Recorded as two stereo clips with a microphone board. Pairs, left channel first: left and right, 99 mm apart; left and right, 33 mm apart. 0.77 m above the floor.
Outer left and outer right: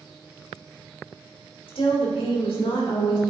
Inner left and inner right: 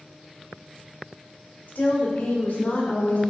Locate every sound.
1.7 s a woman speaking: 60° left (ahead or behind), 2 m